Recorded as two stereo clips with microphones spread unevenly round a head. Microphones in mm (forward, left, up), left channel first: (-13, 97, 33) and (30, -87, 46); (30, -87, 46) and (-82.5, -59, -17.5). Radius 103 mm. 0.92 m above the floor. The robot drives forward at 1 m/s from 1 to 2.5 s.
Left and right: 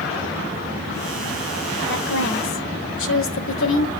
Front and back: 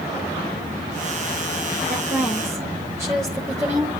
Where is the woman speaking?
80° left, 3 m; by 3.9 s 95° left, 3 m.